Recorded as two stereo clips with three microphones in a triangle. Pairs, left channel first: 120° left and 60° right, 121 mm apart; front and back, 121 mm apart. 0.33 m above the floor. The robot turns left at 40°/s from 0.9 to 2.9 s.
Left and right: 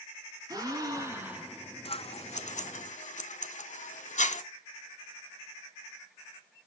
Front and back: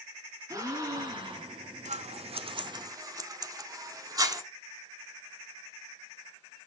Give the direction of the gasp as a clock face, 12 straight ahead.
4 o'clock.